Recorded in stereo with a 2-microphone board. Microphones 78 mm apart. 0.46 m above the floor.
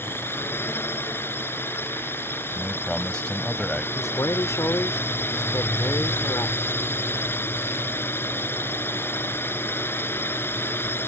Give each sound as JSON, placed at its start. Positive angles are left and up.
{"t": 0.0, "sound": "a drone", "side_deg": 30}
{"t": 2.5, "sound": "a man speaking", "side_deg": 10}
{"t": 4.0, "sound": "a man speaking", "side_deg": 40}